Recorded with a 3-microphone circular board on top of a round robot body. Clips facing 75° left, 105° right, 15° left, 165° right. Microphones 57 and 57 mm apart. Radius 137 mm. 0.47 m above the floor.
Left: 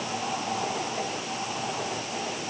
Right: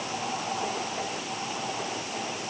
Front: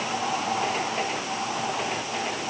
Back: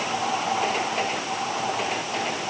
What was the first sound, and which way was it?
Only background noise.